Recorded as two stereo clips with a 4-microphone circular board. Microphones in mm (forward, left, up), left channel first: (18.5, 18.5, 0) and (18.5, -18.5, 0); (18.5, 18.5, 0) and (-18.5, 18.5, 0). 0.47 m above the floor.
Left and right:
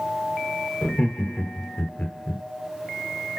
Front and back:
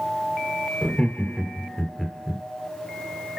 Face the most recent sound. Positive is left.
turn(degrees=75)